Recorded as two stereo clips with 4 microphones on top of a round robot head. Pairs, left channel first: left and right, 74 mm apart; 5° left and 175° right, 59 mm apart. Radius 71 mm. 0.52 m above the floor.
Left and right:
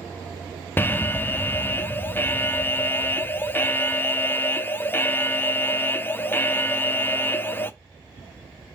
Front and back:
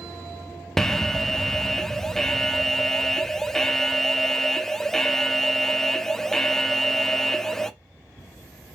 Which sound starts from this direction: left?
An alarm, at 0.8 s.